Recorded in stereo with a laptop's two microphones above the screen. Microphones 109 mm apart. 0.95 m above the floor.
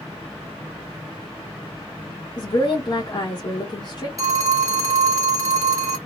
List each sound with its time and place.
2.4 s a woman speaking: 45° left (ahead or behind), 1.1 m
4.2 s a phone ringing: 30° right (ahead or behind), 0.7 m